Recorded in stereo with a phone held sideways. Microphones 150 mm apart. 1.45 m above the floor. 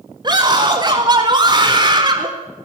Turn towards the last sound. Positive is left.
turn(degrees=-30)  # may be behind; listen again after turning